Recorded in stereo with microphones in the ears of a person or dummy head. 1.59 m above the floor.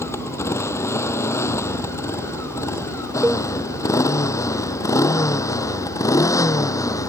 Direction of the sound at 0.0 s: 15° left (ahead or behind).